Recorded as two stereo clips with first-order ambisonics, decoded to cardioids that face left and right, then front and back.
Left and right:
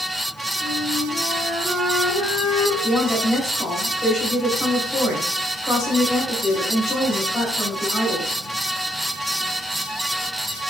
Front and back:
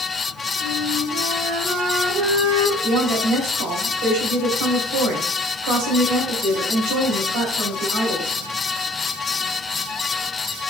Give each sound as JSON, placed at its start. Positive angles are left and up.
{"t": 0.6, "sound": "a flute", "azimuth_deg": -130, "distance_m": 2.5}
{"t": 2.8, "sound": "a woman speaking", "azimuth_deg": 165, "distance_m": 3.0}